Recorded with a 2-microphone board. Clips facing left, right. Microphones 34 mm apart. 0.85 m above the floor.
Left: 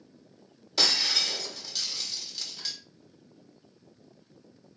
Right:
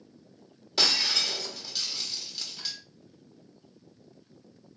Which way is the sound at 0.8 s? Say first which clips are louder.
Even; 10° right (ahead or behind).